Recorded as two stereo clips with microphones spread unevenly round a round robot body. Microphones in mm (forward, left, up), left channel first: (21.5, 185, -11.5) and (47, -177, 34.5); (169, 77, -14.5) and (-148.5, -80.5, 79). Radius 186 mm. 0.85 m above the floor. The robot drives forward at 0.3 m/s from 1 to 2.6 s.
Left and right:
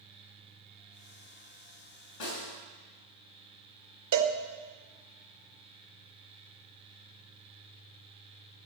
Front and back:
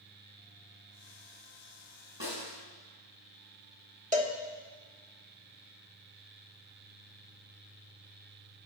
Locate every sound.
2.2 s a snare drum: 130° left, 5 m
4.1 s a cowbell: 75° right, 1.1 m